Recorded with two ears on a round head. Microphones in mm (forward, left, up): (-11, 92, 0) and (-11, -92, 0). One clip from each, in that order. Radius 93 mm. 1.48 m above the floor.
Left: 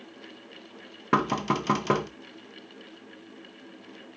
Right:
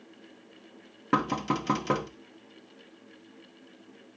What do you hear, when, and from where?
1.1 s knocking: 15° left (ahead or behind), 0.8 m